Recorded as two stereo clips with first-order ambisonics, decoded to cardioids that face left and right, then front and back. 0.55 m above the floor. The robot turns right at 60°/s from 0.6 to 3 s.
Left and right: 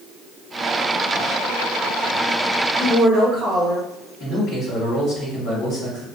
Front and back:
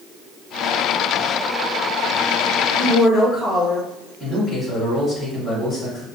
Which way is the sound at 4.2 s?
95° left.